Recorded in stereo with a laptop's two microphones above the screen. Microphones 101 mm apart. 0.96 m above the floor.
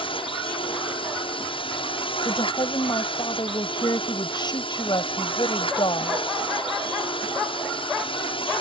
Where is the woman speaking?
50° left (ahead or behind).